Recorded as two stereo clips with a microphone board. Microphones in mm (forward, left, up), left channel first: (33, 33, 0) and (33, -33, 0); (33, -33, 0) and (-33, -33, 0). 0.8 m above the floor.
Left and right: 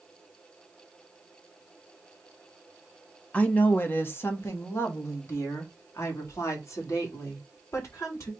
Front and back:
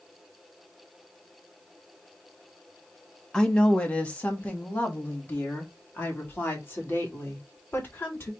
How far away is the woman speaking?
About 1.0 m.